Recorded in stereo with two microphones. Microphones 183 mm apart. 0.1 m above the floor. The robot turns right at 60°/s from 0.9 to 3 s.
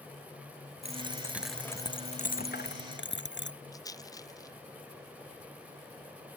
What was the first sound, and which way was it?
A dropped coin, 35° right.